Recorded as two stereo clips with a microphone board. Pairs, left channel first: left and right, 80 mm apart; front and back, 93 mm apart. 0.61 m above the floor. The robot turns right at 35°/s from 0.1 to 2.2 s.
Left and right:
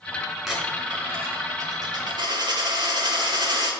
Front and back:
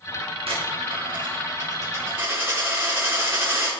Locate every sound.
0.5 s a dropped coin: 175° right, 3.5 m; by 3.7 s 115° right, 3.5 m